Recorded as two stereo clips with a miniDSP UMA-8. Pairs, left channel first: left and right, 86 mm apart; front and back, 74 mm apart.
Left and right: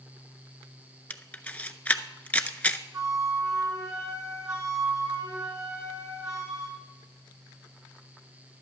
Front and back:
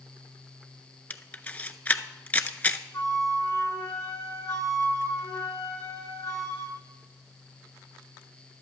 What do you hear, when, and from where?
1.1 s a camera shutter: 40° left, 0.5 m
2.9 s a flute: 55° right, 3 m